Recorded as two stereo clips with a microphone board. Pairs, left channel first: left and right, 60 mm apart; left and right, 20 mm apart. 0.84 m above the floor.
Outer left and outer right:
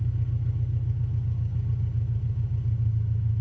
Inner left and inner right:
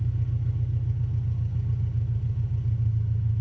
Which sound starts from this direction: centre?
An engine running, at 0.0 s.